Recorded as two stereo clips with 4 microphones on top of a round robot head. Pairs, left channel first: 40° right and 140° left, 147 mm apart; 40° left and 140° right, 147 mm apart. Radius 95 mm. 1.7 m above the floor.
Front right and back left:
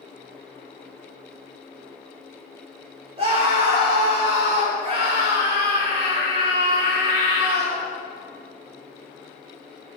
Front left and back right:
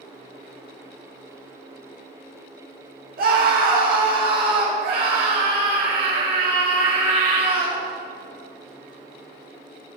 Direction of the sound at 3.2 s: 165° right.